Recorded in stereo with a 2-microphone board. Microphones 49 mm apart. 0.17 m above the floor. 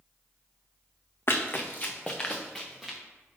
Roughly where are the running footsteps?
Left.